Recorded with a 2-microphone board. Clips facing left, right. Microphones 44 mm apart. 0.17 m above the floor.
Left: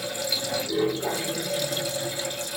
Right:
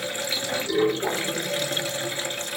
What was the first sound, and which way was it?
Running water, 55° right (ahead or behind).